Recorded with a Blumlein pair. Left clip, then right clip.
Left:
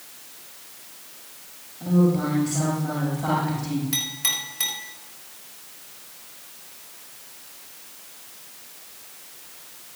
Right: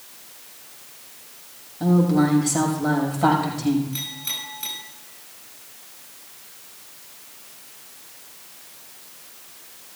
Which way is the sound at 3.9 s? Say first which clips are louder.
Left 4 dB; 40° left.